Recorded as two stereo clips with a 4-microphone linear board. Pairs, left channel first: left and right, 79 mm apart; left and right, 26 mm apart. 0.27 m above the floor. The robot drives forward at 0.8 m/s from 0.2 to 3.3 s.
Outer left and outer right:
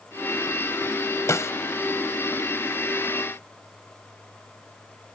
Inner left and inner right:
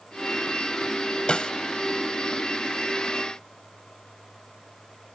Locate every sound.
1.3 s a snare drum: 40° left (ahead or behind)